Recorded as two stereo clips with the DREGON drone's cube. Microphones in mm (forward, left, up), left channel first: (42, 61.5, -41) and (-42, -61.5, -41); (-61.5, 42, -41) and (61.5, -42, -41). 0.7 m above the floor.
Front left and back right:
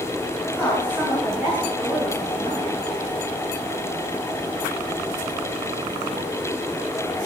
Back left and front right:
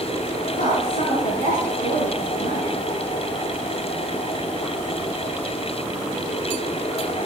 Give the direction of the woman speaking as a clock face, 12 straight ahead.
7 o'clock.